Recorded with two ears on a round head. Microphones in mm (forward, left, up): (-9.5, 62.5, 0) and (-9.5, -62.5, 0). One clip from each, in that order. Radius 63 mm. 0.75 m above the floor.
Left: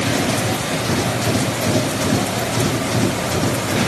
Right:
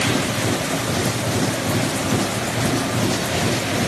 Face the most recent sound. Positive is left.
No sound to turn to.